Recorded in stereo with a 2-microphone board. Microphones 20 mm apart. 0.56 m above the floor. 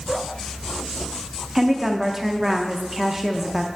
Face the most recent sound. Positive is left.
turn(degrees=-20)  # may be behind; listen again after turning